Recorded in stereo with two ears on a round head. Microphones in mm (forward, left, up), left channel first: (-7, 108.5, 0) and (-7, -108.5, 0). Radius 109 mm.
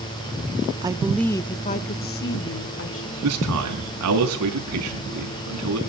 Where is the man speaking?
70° right (ahead or behind), 4.5 m.